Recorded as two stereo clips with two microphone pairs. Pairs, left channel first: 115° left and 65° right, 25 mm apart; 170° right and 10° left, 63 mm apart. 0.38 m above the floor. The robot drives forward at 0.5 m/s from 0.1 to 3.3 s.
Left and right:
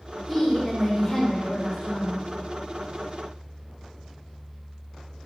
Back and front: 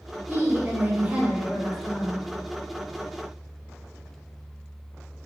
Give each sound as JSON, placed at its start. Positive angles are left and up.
{"t": 0.3, "sound": "a woman speaking", "azimuth_deg": 25, "distance_m": 1.1}